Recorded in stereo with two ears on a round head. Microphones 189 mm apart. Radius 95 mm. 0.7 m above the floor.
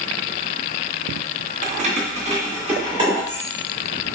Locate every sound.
1.6 s keys jangling: 35° right (ahead or behind), 0.7 m; by 3.4 s 20° right (ahead or behind), 1.9 m